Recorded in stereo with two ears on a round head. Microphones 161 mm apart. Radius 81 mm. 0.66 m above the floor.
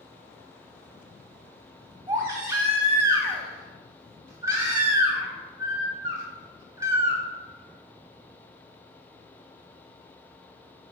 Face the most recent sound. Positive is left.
turn(degrees=-15)  # may be behind; listen again after turning